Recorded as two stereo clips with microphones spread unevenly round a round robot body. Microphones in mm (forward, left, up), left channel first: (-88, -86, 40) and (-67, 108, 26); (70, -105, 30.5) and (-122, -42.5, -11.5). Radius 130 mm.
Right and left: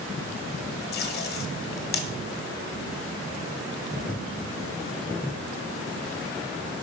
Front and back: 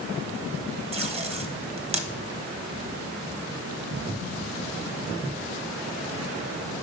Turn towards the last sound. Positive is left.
turn(degrees=-135)